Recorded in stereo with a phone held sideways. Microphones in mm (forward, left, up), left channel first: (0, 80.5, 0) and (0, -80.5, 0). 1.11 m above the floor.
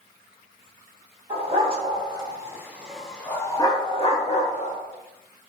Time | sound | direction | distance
1.3 | a dog barking | 40° right (ahead or behind) | 1.3 m